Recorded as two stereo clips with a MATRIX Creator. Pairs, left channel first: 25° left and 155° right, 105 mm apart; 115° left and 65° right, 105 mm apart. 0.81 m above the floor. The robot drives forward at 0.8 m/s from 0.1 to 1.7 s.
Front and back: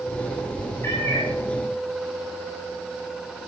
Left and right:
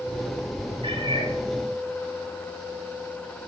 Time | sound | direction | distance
0.8 | a cat meowing | 40° right | 7 m